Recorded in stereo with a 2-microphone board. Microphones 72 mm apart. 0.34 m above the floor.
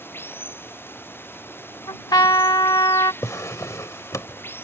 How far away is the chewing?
I don't hear chewing.